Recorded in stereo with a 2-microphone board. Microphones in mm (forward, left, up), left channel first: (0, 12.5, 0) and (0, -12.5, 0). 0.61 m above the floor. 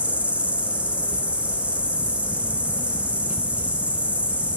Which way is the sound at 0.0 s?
55° right (ahead or behind).